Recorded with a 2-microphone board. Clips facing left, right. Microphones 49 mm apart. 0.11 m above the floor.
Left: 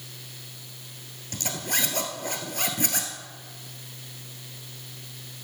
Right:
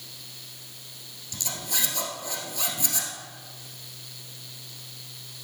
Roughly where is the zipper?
Left.